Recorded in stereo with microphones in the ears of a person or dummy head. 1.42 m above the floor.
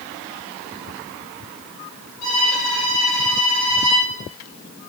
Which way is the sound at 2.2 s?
80° left.